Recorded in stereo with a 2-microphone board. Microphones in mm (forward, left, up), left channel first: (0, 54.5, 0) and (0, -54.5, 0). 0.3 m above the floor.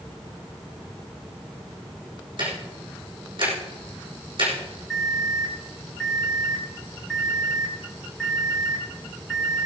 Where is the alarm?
5° left (ahead or behind), 6 m.